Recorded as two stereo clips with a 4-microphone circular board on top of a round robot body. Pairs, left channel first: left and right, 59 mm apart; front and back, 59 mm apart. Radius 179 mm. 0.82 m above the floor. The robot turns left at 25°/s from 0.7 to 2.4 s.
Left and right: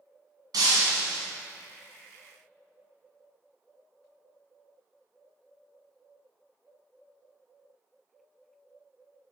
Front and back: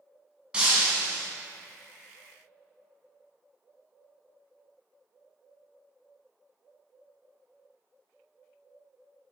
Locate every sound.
0.5 s breaking glass: 105° right, 1.4 m; by 1.3 s 120° right, 1.4 m